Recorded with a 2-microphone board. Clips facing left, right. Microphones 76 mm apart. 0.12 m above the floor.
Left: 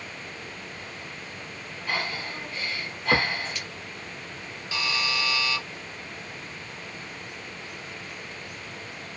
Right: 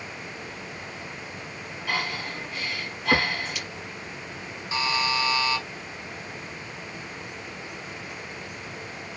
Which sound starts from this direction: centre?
Breathing, at 1.9 s.